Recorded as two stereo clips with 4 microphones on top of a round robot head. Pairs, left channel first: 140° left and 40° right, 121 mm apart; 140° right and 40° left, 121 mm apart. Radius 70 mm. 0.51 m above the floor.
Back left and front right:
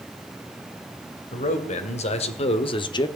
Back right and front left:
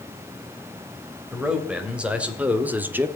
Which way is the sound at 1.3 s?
120° left.